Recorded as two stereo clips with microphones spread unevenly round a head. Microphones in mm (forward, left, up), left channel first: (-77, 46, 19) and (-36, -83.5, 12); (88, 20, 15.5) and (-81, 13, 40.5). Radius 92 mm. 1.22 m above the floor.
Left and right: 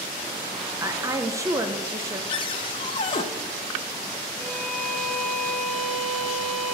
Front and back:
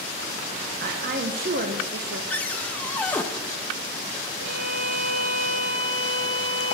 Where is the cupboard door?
90° left, 0.6 m.